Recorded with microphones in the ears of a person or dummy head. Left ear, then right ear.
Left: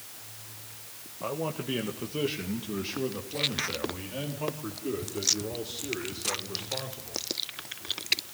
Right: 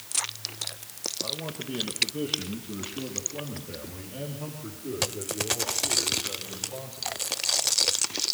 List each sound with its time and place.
1.2 s a man speaking: 75° left (ahead or behind), 1.6 m; by 7.2 s 50° left (ahead or behind), 5.5 m